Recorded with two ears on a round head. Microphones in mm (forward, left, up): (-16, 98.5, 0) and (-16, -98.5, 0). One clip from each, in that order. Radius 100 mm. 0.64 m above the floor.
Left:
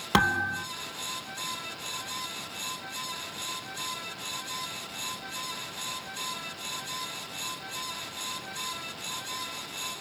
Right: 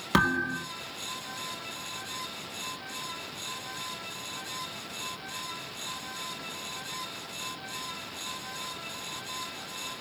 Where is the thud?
5° left (ahead or behind), 1.1 m.